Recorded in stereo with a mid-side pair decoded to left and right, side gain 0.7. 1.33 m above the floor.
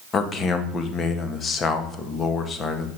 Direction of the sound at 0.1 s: 35° left.